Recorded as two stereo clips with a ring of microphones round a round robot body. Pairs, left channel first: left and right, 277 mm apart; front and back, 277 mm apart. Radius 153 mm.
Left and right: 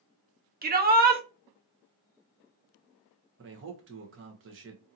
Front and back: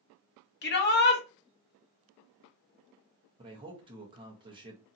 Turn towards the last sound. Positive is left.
turn(degrees=-115)